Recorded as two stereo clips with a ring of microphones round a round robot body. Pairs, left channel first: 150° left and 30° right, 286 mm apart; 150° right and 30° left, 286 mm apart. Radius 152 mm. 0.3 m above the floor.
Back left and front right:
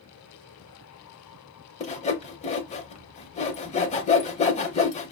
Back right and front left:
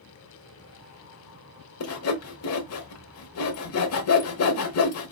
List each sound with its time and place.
1.8 s sawing: 150° right, 0.8 m